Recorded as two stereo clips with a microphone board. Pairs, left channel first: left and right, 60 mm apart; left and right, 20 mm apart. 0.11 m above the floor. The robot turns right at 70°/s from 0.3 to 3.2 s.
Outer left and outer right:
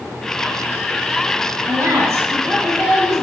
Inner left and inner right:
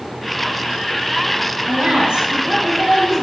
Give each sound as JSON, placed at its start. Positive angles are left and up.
{"t": 1.7, "sound": "a woman speaking", "azimuth_deg": -95, "distance_m": 2.0}